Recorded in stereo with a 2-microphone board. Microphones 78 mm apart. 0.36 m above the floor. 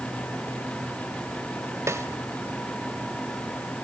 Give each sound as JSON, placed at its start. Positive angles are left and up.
{"t": 1.9, "sound": "a snare drum", "side_deg": -35, "distance_m": 1.3}